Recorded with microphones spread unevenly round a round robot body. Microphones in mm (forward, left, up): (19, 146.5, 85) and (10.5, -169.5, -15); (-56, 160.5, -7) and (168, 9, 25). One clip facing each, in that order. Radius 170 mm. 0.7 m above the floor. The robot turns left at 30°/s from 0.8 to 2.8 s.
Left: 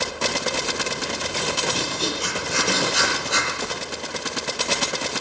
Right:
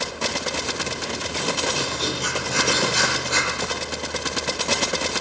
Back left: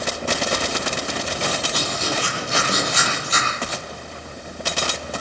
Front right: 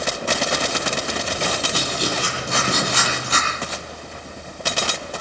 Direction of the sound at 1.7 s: 25° left.